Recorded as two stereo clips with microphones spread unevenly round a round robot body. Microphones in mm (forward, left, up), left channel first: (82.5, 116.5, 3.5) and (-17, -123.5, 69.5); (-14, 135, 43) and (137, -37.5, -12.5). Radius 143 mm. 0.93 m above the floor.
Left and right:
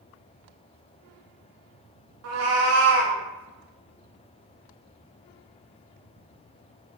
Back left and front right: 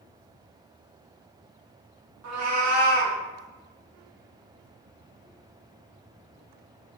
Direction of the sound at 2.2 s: 90° right.